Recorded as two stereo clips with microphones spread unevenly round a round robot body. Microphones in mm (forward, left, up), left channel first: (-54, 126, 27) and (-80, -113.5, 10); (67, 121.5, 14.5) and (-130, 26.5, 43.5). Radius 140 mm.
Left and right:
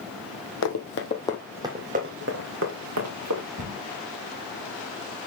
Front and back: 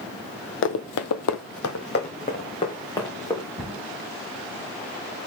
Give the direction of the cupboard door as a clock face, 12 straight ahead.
2 o'clock.